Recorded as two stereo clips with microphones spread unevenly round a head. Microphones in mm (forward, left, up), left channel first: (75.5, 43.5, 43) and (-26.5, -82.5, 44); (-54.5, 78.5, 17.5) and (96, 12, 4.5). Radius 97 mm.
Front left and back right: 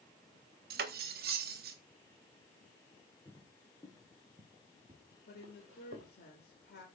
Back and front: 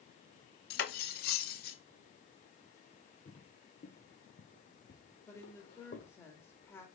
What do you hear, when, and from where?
0.7 s cutlery clinking: 170° right, 0.5 m
3.2 s footsteps: 120° left, 1.7 m; by 6.1 s 170° right, 2 m
5.3 s a woman speaking: 80° left, 1.9 m